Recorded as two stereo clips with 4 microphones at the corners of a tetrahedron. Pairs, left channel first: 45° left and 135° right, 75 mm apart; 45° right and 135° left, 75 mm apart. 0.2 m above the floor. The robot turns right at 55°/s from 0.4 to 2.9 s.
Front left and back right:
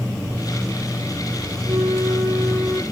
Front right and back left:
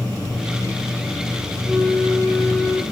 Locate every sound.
1.6 s a flute: 120° right, 1.4 m; by 2.8 s 55° right, 1.4 m